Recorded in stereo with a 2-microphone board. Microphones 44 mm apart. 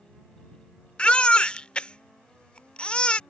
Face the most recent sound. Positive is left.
turn(degrees=25)  # may be behind; listen again after turning